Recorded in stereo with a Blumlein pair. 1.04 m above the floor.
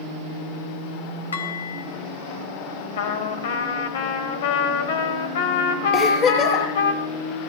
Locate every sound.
1.3 s dishes clattering: 65° left, 3 m
3.0 s a trumpet: 55° left, 2.5 m
5.9 s a giggle: 35° left, 7.5 m